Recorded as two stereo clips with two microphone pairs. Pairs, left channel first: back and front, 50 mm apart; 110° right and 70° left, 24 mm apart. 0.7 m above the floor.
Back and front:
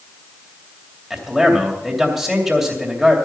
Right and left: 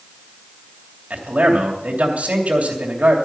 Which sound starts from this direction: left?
A man speaking, at 1.1 s.